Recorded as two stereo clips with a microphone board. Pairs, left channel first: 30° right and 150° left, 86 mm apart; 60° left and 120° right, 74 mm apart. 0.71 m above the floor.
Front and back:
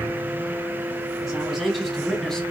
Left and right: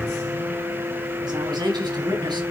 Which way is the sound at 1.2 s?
125° right.